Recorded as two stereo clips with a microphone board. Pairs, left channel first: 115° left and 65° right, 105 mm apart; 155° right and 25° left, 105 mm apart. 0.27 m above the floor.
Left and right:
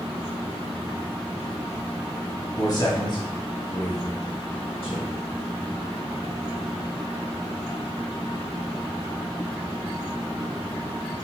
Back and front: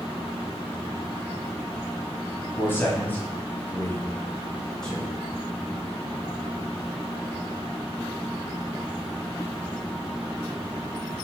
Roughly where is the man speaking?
Behind left.